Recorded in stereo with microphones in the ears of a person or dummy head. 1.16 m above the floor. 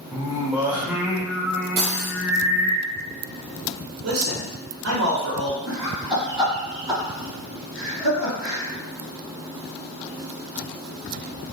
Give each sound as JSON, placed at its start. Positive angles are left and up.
{"t": 0.1, "sound": "singing", "side_deg": -5, "distance_m": 0.6}
{"t": 1.8, "sound": "cutlery clinking", "side_deg": -50, "distance_m": 1.1}
{"t": 4.0, "sound": "a man speaking", "side_deg": -75, "distance_m": 1.3}
{"t": 5.7, "sound": "laughter", "side_deg": 5, "distance_m": 1.6}